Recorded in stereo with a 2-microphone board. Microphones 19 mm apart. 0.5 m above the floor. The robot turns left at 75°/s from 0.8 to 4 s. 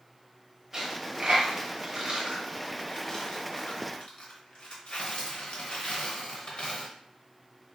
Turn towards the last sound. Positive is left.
turn(degrees=75)  # may be behind; listen again after turning